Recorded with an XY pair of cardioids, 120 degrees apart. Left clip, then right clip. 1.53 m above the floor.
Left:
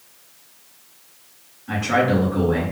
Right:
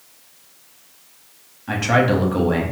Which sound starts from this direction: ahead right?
A man speaking, at 1.7 s.